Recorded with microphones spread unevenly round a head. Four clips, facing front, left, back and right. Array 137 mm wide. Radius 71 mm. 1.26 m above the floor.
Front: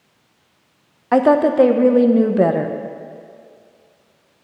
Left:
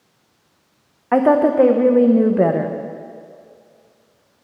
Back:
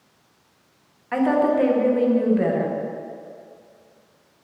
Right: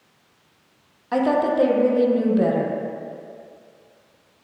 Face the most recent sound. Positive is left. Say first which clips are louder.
# left 6 dB, front 6 dB
turn(degrees=40)